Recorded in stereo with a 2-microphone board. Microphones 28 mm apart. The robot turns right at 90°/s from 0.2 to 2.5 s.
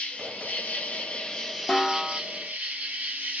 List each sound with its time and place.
0.0 s an insect: 50° left, 1.6 m; by 3.4 s 105° right, 1.6 m
1.7 s a snare drum: 25° left (ahead or behind), 1.1 m; by 2.2 s 10° left (ahead or behind), 1.1 m